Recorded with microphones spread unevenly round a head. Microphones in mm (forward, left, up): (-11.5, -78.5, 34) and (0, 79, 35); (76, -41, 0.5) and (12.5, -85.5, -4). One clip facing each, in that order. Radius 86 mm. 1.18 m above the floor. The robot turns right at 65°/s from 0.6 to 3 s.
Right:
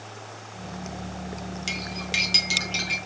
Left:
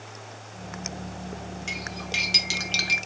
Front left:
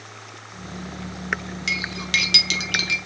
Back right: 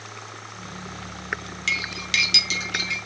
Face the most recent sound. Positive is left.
turn(degrees=45)